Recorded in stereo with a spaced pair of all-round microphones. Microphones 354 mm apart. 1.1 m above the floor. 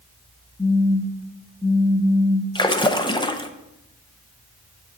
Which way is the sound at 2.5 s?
15° left (ahead or behind).